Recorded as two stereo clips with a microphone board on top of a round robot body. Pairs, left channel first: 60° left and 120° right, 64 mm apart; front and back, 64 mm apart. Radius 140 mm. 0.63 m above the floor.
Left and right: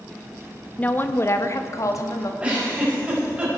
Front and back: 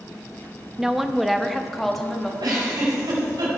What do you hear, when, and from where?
0.8 s a woman speaking: 105° left, 0.9 m; by 2.3 s 85° left, 2 m
2.4 s a giggle: 170° left, 5 m